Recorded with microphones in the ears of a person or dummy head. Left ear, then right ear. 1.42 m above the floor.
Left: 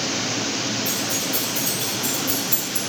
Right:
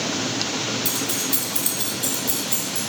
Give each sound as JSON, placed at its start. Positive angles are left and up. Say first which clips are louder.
{"t": 0.8, "sound": "keys jangling", "louder": "left 1 dB", "side_deg": -50, "distance_m": 1.7}